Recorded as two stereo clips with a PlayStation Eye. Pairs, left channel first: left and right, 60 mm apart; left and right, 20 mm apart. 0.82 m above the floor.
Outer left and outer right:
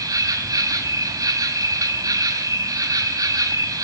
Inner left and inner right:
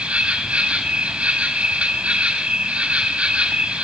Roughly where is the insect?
Right.